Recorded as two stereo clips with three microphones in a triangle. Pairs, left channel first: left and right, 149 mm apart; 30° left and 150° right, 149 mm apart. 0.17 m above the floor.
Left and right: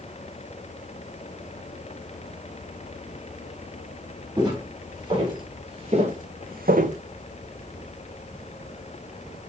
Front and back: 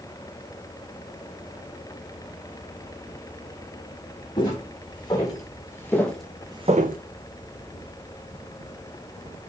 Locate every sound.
4.4 s footsteps: 30° right, 3 m; by 7.0 s 135° right, 0.6 m